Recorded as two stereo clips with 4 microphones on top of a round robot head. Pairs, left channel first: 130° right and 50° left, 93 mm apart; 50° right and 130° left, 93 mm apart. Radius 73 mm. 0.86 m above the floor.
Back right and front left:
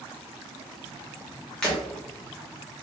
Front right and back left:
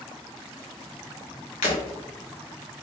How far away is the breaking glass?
About 0.8 m.